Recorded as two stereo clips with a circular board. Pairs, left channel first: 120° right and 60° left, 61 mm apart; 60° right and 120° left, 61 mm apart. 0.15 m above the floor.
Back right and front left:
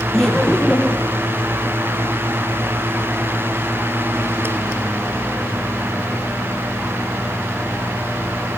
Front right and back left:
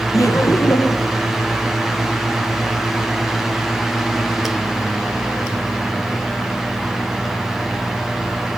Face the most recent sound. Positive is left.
turn(degrees=-60)